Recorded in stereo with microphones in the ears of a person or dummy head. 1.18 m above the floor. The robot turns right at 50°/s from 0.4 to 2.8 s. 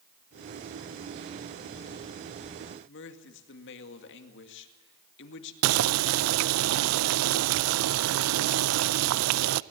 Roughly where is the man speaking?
Left.